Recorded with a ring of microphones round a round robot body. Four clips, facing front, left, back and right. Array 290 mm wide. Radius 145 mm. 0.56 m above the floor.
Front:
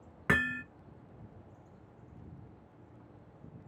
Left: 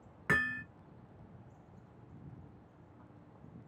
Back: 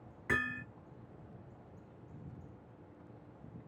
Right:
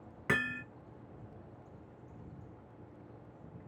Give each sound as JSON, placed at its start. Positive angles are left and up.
{"t": 0.3, "sound": "hammering", "azimuth_deg": -10, "distance_m": 0.9}